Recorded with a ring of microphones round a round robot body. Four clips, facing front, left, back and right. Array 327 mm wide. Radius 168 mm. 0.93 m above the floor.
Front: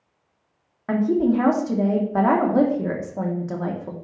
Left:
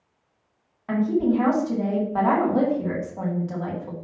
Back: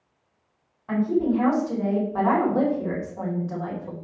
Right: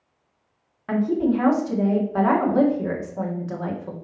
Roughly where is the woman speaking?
Ahead.